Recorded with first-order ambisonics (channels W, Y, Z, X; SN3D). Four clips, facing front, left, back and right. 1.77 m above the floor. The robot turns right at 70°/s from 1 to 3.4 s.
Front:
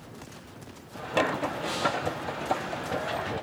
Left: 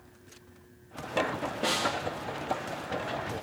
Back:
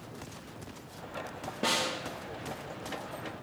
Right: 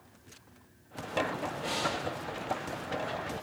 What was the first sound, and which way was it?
A snare drum, 135° left.